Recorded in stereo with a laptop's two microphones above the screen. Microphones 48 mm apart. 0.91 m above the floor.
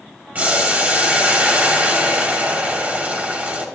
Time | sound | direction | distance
0.3 | boiling | 35° right (ahead or behind) | 1.7 m